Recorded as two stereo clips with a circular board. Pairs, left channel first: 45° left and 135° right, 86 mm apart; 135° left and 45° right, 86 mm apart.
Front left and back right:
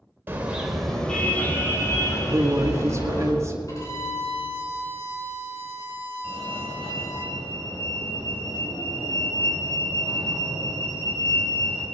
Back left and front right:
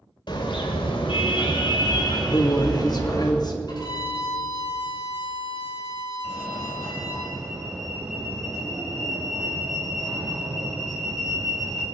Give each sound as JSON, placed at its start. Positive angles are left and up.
{"t": 0.3, "sound": "a car horn", "azimuth_deg": 160, "distance_m": 2.0}
{"t": 2.3, "sound": "a woman speaking", "azimuth_deg": 170, "distance_m": 2.0}
{"t": 3.7, "sound": "a violin", "azimuth_deg": 95, "distance_m": 5.5}
{"t": 6.2, "sound": "a fire alarm", "azimuth_deg": 40, "distance_m": 4.5}